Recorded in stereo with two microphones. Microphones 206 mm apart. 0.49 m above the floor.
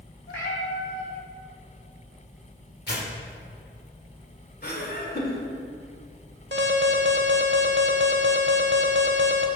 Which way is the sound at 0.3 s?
70° left (ahead or behind).